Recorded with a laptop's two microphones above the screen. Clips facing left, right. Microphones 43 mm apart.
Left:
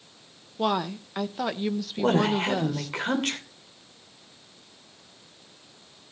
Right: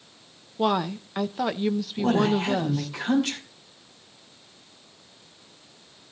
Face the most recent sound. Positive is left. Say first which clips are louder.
# even
turn(degrees=55)  # may be behind; listen again after turning